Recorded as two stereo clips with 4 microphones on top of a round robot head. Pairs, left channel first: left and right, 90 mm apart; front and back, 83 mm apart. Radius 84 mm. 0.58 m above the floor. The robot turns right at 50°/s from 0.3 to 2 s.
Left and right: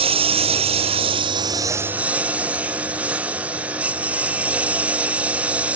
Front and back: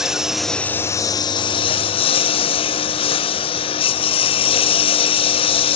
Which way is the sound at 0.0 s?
95° right.